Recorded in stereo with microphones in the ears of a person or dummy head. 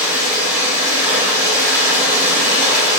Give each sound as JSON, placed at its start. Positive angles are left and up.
{"t": 0.0, "sound": "running water", "side_deg": -10, "distance_m": 1.5}